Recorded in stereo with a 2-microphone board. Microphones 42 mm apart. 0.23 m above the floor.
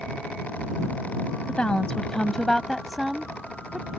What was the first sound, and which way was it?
A woman speaking, 30° left (ahead or behind).